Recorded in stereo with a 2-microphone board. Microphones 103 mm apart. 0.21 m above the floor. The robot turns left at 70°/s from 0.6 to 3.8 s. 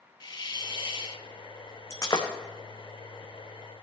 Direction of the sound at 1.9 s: 30° left (ahead or behind).